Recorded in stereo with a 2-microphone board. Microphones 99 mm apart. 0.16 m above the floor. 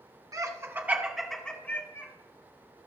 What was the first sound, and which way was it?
Laughter, 35° right (ahead or behind).